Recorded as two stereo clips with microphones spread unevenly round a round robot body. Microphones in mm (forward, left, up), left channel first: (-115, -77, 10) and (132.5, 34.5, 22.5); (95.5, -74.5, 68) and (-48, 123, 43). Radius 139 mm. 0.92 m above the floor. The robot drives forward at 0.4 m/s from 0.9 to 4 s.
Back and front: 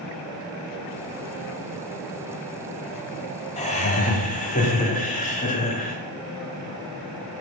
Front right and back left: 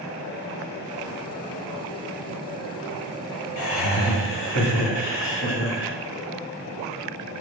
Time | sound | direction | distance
3.6 | laughter | 90° right | 2 m